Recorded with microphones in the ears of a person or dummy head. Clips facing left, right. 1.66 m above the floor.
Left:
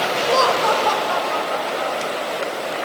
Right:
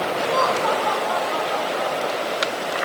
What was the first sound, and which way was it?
Laughter, 55° left (ahead or behind).